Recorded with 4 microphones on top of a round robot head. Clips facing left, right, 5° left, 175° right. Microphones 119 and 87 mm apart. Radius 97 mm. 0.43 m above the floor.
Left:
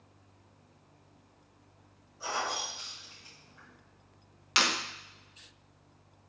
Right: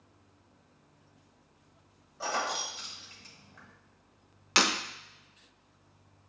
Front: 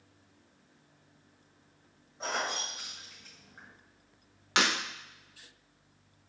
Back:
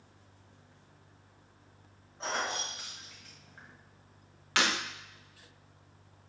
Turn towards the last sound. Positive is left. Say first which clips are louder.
# right 3 dB, front 1 dB
turn(degrees=-65)